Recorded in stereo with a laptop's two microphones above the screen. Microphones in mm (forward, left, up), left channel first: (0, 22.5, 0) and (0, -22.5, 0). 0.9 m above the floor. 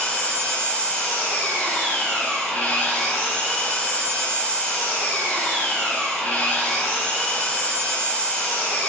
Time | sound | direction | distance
0.0 | an engine running | 40° left (ahead or behind) | 1.5 m